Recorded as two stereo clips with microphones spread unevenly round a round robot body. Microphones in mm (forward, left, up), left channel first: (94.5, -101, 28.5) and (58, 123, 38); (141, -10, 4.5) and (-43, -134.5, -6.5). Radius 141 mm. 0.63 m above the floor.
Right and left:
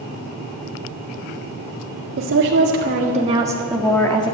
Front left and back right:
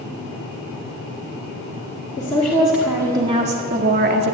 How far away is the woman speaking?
About 1.9 m.